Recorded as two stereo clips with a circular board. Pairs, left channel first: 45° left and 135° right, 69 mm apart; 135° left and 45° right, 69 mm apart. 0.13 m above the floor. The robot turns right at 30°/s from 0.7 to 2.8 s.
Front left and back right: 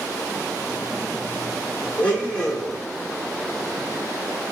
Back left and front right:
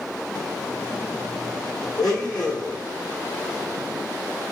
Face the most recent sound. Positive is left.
turn(degrees=135)